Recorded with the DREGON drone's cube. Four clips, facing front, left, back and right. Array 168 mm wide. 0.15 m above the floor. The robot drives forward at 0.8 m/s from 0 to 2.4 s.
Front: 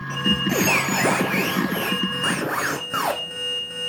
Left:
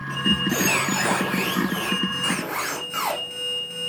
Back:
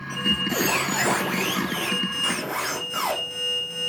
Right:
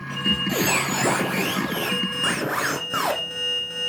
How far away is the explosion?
I don't hear an explosion.